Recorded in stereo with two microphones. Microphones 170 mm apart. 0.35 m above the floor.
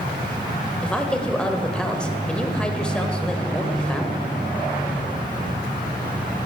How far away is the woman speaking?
About 1.2 m.